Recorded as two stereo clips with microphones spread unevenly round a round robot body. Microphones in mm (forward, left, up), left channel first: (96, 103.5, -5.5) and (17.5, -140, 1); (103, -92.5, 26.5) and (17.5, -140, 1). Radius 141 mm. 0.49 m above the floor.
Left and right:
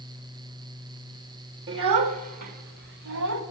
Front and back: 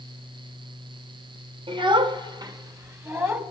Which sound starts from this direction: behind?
A child speaking, at 1.7 s.